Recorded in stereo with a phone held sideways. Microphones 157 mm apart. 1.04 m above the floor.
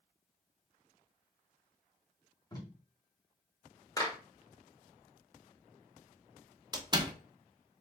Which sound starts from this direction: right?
A door slam, at 6.7 s.